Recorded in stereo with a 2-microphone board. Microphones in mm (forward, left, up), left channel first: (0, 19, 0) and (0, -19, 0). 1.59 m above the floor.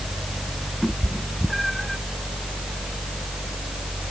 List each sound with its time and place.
0.8 s a cat meowing: centre (ahead or behind)